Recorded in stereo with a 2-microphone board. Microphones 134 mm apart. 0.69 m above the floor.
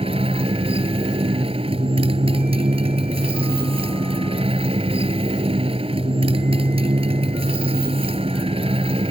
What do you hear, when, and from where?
0.0 s a motorcycle: 45° right (ahead or behind)